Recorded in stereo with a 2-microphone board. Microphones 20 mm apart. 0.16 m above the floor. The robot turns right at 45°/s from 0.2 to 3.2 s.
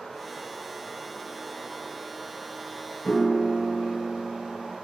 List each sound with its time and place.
0.0 s running water: 105° left, 1.7 m; by 4.8 s 120° right, 1.7 m
3.0 s a piano: 55° left (ahead or behind), 0.5 m; by 4.7 s 60° left (ahead or behind), 0.5 m